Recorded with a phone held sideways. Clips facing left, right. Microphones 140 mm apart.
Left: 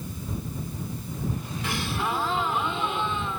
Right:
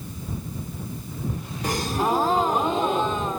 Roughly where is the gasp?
Right.